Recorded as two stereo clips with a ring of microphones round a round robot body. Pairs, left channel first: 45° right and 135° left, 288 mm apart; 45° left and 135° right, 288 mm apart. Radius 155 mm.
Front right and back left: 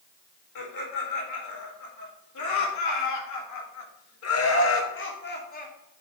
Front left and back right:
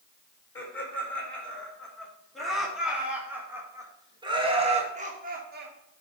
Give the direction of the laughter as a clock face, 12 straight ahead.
1 o'clock.